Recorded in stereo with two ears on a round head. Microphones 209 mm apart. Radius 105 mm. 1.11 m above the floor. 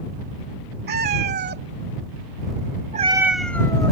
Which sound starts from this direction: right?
A cat meowing, at 0.9 s.